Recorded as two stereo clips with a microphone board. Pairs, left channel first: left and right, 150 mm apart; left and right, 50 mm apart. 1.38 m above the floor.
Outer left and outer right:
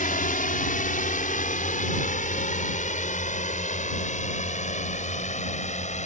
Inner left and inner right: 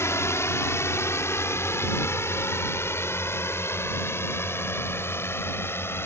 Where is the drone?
70° left (ahead or behind); by 6.1 s 55° left (ahead or behind).